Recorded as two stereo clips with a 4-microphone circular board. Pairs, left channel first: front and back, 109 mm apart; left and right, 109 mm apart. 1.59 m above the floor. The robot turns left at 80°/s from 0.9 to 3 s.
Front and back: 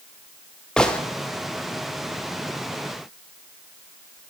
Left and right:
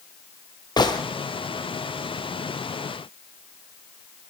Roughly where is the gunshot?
Left.